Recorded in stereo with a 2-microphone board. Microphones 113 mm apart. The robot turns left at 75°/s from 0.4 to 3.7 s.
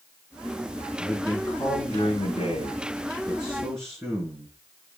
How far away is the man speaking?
About 4 m.